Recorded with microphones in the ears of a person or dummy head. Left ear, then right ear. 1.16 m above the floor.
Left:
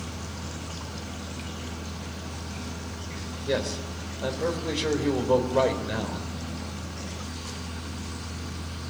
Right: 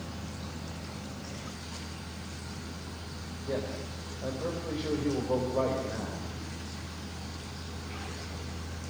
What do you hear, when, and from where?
0.0 s a fan: 25° left (ahead or behind), 8.5 m
3.5 s a man speaking: 65° left (ahead or behind), 3.5 m